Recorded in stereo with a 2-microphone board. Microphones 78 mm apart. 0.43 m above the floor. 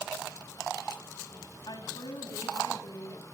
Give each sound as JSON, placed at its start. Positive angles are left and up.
{"t": 1.7, "sound": "a woman speaking", "side_deg": 70, "distance_m": 2.5}